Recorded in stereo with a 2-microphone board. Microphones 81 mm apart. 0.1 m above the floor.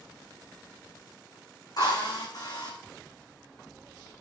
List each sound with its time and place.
1.8 s a drill: 55° left (ahead or behind), 3.5 m